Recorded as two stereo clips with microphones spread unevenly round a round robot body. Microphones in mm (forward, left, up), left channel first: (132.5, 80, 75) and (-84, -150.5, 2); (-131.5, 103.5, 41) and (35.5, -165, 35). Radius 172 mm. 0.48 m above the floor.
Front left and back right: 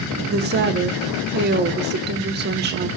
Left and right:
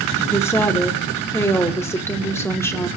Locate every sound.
0.3 s a woman speaking: 160° right, 1.2 m